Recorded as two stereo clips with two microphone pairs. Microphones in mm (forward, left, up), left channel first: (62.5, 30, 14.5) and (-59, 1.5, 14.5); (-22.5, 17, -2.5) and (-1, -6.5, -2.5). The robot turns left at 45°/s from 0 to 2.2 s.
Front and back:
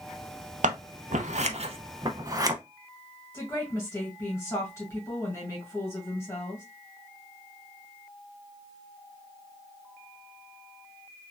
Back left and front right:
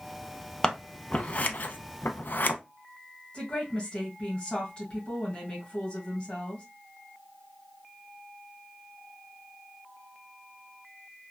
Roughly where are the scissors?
Behind.